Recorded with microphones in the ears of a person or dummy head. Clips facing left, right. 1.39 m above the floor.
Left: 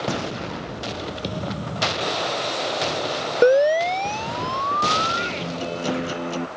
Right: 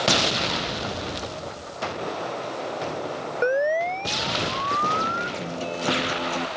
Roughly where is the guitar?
Centre.